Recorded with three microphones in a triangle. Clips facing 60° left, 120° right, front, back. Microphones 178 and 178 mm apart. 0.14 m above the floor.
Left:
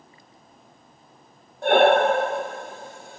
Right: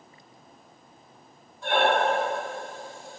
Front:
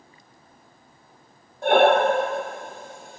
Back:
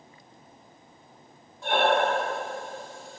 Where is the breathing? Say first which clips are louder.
Left 7 dB, front 7 dB; 30° left, 0.9 m.